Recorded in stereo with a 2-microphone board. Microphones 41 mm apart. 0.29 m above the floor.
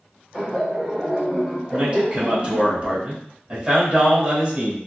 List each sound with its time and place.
0.3 s laughter: 25° right (ahead or behind), 1.6 m; by 2.7 s 20° left (ahead or behind), 1.8 m
1.7 s a man speaking: 30° right (ahead or behind), 1.3 m